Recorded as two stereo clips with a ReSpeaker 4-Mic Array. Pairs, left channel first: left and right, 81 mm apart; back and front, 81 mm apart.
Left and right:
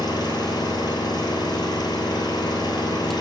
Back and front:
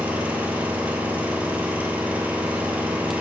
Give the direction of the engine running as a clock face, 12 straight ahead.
10 o'clock.